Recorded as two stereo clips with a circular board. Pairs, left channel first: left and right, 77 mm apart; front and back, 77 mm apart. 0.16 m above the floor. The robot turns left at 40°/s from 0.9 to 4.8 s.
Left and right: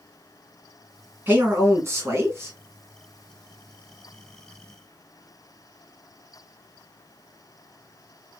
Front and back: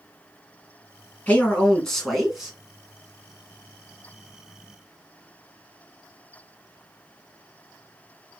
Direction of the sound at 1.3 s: 55° right.